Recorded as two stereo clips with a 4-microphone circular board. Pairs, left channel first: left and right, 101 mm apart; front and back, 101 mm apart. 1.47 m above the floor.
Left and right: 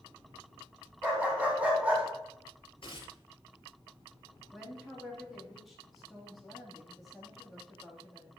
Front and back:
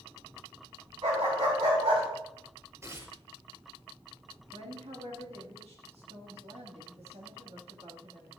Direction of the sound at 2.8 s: 120° left.